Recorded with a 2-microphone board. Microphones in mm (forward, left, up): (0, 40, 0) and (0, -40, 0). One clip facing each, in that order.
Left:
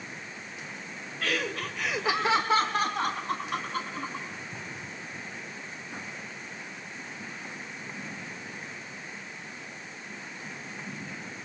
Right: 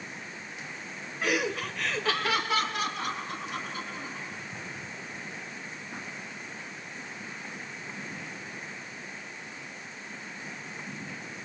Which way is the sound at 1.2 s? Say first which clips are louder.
Right 2 dB; 20° right (ahead or behind).